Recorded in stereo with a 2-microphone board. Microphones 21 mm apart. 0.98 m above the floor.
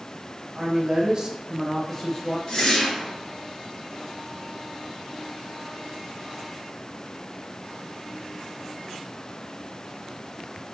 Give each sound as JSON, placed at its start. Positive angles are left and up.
{"t": 0.6, "sound": "a woman speaking", "side_deg": -50, "distance_m": 1.0}
{"t": 2.5, "sound": "a whoosh", "side_deg": 45, "distance_m": 1.7}